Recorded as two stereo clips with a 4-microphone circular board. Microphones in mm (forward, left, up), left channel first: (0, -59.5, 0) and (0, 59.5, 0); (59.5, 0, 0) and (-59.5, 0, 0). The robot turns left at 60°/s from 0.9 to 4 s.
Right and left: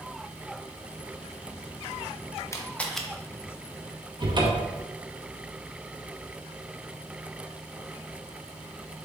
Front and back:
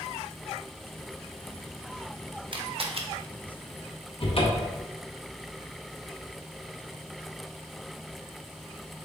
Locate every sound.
2.5 s a camera shutter: 150° right, 0.6 m; by 3.0 s straight behind, 0.6 m
4.2 s a cupboard door: 40° left, 0.9 m